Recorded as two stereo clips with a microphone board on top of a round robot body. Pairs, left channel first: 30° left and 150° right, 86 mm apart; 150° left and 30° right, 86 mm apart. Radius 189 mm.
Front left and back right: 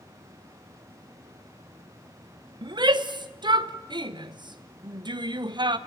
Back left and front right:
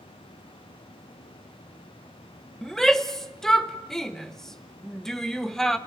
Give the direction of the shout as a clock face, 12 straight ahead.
4 o'clock.